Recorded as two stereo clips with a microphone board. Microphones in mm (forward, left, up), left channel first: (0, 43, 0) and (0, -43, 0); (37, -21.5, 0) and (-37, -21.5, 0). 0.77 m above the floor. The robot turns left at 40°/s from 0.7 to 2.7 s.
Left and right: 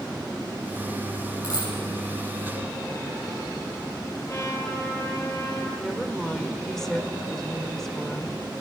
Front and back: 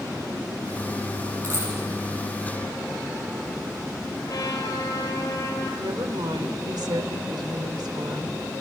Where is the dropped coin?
135° left, 9.5 m; by 1.7 s 125° left, 9.5 m.